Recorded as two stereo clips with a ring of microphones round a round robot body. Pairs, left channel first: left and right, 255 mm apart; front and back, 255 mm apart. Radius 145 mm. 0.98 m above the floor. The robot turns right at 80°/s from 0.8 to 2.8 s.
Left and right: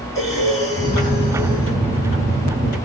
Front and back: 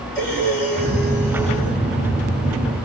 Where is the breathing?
15° left, 2.5 m; by 1.8 s 95° left, 2.5 m.